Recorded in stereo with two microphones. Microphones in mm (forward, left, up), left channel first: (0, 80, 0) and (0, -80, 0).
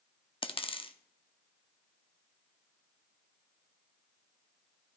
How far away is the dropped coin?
About 0.7 m.